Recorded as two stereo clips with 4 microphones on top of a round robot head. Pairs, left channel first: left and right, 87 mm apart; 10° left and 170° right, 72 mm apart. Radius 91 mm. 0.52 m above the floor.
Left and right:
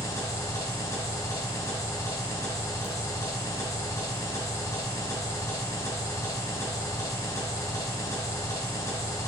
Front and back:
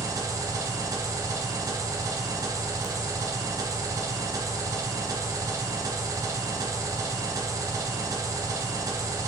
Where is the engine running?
150° left, 1.0 m.